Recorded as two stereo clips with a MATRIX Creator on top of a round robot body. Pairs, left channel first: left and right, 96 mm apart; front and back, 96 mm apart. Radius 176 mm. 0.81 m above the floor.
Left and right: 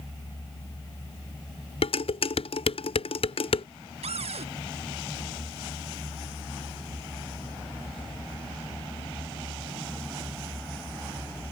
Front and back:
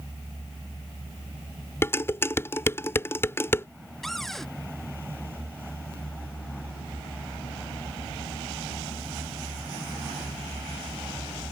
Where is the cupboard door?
85° right.